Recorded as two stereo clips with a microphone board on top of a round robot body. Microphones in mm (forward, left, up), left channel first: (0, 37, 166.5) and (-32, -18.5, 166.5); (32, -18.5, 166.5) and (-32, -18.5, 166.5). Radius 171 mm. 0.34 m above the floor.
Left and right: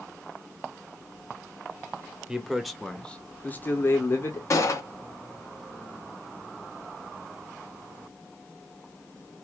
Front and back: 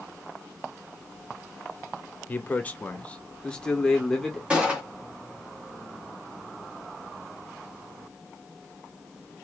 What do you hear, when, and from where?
2.3 s a man speaking: 50° right, 1.7 m; by 4.4 s 85° left, 2.0 m
4.5 s a gunshot: 105° left, 2 m